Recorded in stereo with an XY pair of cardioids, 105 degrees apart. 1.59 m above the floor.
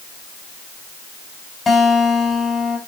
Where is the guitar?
25° left, 4.5 m.